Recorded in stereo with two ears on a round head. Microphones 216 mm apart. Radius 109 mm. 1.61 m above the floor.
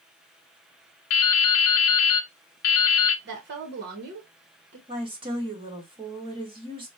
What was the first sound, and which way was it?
Dripping, 60° left (ahead or behind).